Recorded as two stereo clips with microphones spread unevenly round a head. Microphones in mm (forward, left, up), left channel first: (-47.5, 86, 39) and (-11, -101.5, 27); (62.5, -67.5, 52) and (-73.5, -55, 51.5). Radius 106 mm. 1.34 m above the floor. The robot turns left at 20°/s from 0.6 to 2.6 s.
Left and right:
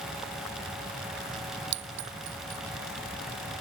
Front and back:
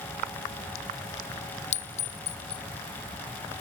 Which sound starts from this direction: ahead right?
A clink, at 1.7 s.